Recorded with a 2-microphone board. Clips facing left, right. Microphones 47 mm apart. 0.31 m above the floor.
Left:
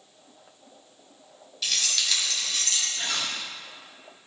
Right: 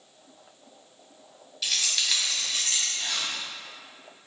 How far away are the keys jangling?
About 1.4 m.